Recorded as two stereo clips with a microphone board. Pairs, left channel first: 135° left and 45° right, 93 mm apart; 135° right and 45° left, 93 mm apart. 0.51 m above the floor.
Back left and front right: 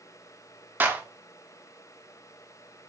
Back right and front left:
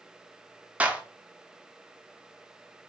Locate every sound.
0.8 s a clap: 10° right, 0.6 m